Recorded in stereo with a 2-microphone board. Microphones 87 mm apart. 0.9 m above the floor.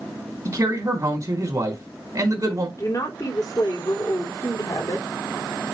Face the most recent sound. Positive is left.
turn(degrees=45)  # may be behind; listen again after turning